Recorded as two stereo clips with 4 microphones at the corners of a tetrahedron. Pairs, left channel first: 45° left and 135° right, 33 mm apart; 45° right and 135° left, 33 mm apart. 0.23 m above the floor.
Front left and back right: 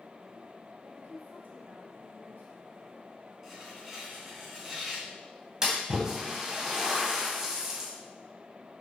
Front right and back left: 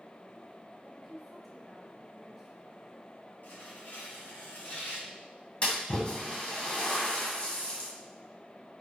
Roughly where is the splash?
Right.